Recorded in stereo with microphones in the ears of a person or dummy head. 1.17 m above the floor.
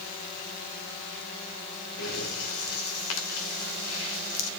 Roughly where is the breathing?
Left.